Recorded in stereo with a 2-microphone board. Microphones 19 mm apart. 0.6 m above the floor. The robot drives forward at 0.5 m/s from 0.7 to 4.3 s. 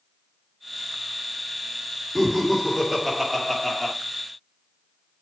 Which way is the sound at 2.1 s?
5° right (ahead or behind).